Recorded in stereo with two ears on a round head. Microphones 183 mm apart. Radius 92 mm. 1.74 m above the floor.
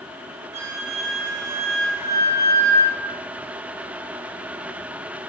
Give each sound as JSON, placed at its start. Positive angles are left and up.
{"t": 0.5, "sound": "a flute", "side_deg": -15, "distance_m": 1.1}